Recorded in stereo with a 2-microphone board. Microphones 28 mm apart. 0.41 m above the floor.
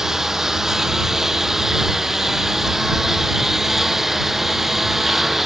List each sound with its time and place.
0.0 s a lawn mower: 20° right (ahead or behind); by 5.5 s 15° right (ahead or behind)